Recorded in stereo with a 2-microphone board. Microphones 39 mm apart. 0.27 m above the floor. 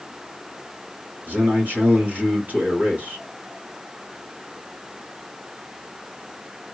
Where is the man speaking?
45° right (ahead or behind), 1.8 m.